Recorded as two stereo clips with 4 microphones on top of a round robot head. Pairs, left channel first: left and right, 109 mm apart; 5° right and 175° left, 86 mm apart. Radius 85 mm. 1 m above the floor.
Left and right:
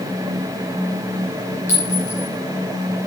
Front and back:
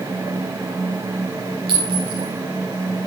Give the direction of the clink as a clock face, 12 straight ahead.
7 o'clock.